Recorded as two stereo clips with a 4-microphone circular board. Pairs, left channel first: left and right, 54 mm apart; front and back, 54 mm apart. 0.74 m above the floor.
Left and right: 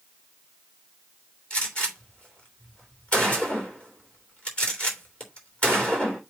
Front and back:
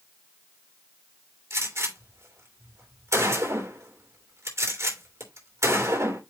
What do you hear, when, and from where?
1.5 s a gunshot: 160° left, 3 m